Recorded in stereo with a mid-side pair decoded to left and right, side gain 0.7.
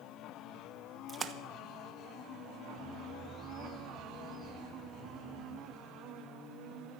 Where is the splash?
25° right, 1.2 m.